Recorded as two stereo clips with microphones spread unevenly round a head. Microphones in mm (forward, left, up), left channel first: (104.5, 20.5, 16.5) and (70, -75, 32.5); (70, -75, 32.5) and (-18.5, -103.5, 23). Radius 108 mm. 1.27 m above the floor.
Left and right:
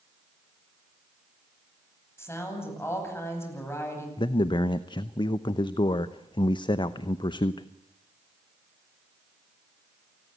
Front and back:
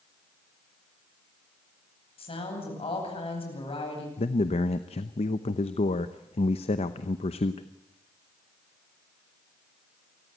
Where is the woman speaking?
5° left, 10 m.